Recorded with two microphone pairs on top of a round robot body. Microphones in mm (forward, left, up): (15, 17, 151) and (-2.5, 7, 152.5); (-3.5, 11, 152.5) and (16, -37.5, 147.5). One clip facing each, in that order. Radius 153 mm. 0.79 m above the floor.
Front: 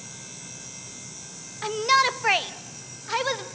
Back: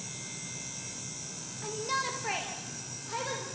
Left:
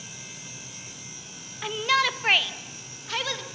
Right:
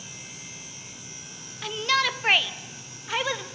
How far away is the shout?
About 1.0 m.